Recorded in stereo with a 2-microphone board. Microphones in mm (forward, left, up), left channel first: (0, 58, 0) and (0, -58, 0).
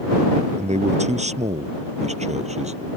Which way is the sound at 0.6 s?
80° right.